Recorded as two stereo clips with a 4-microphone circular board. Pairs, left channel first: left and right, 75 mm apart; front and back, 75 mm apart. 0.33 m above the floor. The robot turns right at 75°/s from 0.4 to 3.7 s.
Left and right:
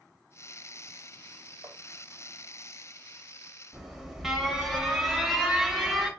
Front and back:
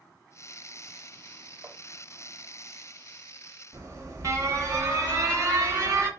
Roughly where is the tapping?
Behind right.